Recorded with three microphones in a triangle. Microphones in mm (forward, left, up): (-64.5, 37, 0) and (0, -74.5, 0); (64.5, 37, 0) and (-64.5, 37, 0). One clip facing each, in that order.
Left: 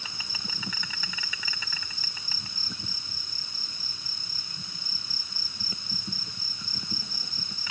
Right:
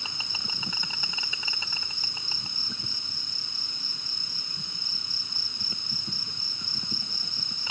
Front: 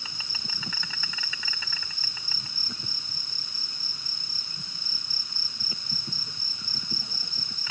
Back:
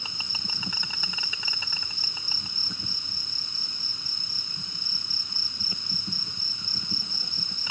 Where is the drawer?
No drawer in this recording.